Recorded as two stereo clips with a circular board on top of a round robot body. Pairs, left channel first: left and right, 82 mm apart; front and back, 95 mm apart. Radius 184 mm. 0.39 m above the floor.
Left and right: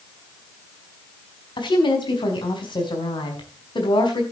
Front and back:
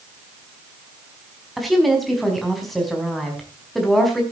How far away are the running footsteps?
I don't hear running footsteps.